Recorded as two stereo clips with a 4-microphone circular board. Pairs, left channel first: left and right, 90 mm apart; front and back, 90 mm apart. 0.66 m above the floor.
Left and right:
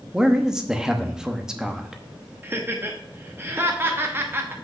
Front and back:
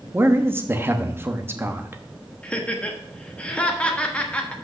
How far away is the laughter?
About 1.0 m.